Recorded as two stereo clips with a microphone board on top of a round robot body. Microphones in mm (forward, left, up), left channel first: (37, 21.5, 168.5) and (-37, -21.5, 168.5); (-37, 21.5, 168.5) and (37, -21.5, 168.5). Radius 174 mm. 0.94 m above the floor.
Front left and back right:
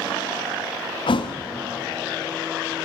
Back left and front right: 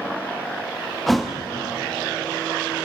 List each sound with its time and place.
1.1 s a thud: 60° left, 0.8 m